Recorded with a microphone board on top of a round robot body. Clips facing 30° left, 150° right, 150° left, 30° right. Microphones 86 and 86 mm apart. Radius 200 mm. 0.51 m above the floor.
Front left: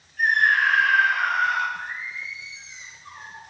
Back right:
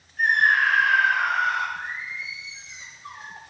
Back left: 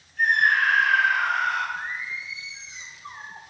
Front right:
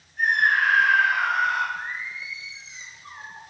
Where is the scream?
95° right, 3 m.